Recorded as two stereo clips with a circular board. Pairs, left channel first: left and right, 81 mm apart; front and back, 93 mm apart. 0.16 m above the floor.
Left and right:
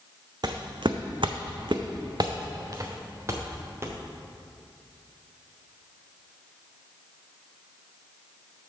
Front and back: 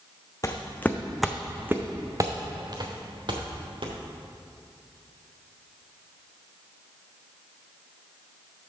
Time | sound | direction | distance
0.4 | footsteps | 55° right | 0.7 m